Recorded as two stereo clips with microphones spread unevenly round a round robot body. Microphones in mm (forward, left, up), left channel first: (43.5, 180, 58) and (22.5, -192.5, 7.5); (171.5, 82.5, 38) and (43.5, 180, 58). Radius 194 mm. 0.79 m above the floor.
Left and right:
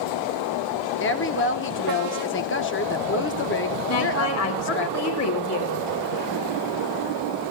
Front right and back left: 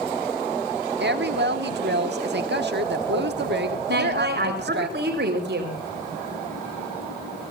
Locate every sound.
1.0 s a woman speaking: 150° left, 1.7 m
3.9 s a woman speaking: 140° left, 4.5 m